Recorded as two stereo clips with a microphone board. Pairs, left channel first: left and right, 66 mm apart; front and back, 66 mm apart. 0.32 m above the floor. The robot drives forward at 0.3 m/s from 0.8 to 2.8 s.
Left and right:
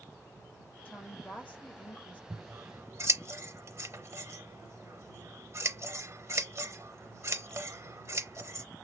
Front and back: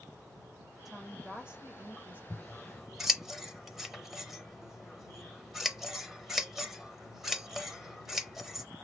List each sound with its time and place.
0.8 s a woman speaking: 95° left, 0.9 m; by 2.2 s 140° left, 1.0 m
2.3 s scissors: 75° right, 0.7 m; by 8.7 s 95° right, 0.7 m